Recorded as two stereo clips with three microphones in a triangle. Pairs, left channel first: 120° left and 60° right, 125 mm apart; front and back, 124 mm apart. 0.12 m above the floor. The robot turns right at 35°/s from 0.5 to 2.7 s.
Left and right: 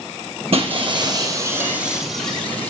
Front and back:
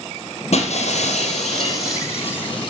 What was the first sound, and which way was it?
Breaking glass, 25° right.